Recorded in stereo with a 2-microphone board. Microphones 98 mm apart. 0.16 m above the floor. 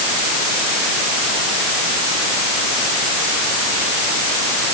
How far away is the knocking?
No knocking in this recording.